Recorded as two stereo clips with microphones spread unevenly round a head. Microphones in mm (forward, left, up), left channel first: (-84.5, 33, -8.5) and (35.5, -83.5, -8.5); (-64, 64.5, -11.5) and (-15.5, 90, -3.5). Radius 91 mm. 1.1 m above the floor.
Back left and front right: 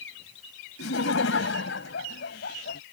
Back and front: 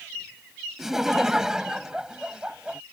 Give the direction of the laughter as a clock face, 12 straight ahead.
8 o'clock.